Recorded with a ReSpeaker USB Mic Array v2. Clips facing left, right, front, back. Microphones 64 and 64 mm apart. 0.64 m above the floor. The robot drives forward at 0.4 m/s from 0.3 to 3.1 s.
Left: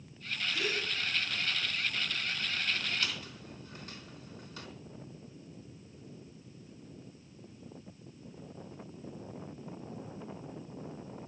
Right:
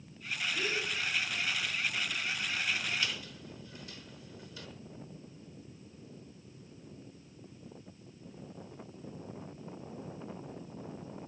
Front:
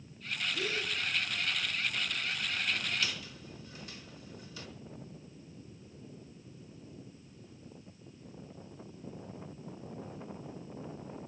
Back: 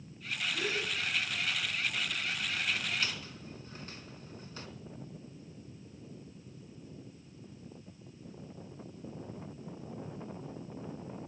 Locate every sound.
0.5 s a gasp: 170° left, 5.5 m
3.0 s a squeak: 125° left, 3.5 m; by 4.7 s 130° left, 3.5 m